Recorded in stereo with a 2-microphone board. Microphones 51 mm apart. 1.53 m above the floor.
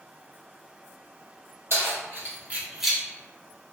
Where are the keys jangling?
55° right (ahead or behind), 1.7 m; by 3.0 s 10° left (ahead or behind), 0.8 m.